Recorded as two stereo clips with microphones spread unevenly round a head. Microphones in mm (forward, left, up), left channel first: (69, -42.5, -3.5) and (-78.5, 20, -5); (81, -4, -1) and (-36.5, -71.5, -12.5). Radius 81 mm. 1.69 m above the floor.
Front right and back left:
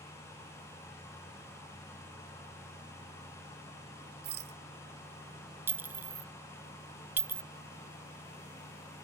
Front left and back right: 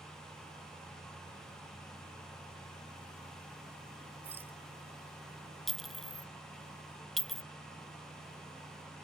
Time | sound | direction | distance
4.2 | a rattle | 130° left | ?
5.7 | a clink | 100° left | ?